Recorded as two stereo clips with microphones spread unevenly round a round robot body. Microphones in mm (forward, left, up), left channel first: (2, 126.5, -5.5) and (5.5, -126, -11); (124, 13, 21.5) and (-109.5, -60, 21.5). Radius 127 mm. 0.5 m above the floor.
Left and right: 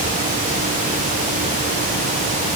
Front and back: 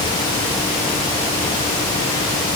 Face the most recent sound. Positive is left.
No sound to turn to.